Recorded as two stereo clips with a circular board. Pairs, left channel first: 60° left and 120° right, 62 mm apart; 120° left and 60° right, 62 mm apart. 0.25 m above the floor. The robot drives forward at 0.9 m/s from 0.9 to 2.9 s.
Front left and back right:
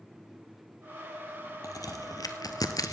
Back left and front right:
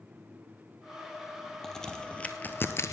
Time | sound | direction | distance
1.6 | a crack | 35° left | 1.7 m